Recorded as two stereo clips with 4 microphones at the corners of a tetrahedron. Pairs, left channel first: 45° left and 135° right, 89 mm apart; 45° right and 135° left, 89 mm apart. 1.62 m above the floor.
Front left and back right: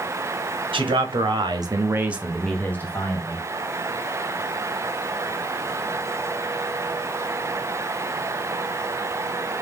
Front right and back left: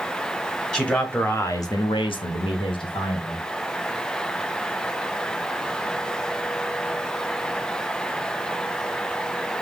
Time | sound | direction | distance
0.7 | a man speaking | 125° right | 1.4 m